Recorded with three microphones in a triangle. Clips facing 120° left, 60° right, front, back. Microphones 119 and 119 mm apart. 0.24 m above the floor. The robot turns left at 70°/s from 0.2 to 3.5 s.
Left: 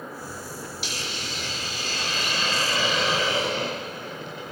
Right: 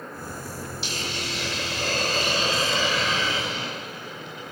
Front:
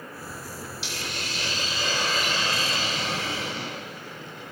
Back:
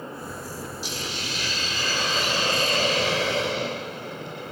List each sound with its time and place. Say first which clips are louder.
0.8 s a hiss: right 2 dB, back 2 dB; 5° left, 8.5 m; by 4.5 s 175° left, 8.5 m